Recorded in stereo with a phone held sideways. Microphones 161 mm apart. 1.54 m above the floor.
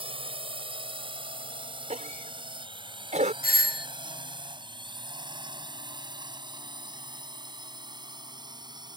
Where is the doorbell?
65° left (ahead or behind).